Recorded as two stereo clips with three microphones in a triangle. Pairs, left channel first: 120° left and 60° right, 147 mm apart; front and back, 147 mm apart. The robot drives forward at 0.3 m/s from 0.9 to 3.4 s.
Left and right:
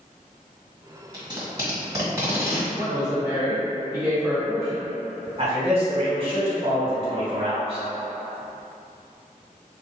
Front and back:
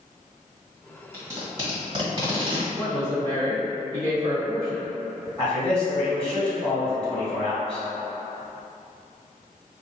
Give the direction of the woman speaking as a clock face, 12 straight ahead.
4 o'clock.